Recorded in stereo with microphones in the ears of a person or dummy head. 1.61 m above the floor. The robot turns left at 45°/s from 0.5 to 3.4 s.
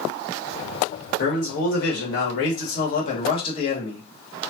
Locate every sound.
1.2 s a man speaking: 130° left, 1.7 m; by 4.1 s 30° left, 1.7 m